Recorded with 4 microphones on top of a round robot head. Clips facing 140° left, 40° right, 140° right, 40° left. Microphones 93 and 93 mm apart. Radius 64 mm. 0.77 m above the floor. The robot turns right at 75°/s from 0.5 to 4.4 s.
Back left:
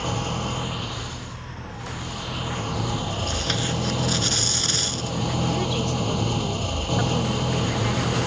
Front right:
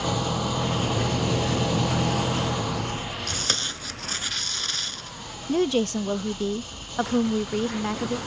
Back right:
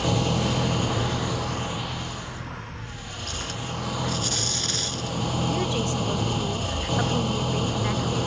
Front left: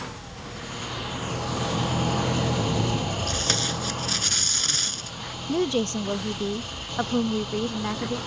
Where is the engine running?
120° right; by 8.3 s 170° left.